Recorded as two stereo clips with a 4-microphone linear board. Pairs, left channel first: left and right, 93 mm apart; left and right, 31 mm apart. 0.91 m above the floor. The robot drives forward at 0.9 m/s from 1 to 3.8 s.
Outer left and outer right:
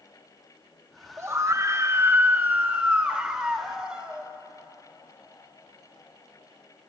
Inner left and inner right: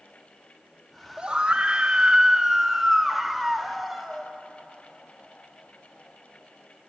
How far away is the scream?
About 0.7 m.